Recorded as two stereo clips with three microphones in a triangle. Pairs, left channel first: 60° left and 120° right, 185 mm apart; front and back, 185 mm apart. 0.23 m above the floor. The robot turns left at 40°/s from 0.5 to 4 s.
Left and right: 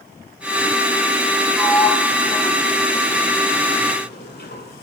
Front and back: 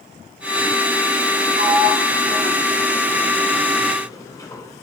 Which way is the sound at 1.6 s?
170° left.